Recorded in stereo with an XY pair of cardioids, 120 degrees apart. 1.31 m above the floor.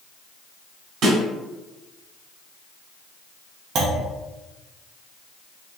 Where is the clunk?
55° right, 0.6 m.